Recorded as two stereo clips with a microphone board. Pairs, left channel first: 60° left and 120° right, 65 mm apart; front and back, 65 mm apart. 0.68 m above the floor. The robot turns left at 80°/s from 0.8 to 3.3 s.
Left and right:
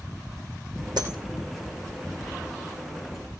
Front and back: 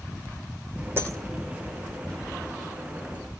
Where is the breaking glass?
125° right, 5 m; by 1.2 s 140° right, 5 m.